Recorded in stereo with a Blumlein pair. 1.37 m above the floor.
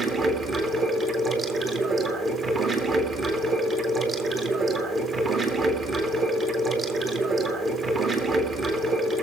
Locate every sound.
0.0 s running water: 20° right, 2.5 m